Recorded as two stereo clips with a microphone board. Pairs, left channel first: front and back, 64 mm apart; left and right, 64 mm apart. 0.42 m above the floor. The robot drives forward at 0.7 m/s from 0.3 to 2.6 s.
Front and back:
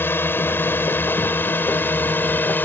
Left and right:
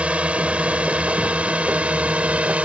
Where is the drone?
30° right; by 2.6 s 35° right.